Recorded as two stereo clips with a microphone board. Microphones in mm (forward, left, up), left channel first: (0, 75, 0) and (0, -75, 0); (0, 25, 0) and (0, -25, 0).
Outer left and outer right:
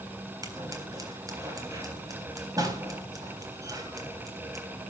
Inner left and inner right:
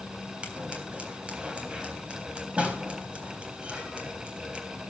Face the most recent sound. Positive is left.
turn(degrees=-25)  # may be behind; listen again after turning